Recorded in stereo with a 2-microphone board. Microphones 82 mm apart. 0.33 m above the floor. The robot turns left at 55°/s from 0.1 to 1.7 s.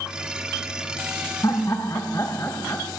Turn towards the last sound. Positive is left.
turn(degrees=35)  # may be behind; listen again after turning